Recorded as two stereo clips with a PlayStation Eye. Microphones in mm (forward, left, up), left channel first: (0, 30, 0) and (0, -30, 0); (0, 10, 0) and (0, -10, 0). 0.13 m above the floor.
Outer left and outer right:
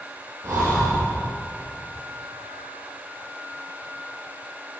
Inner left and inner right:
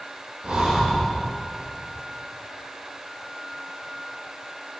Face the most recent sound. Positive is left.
turn(degrees=-65)  # may be behind; listen again after turning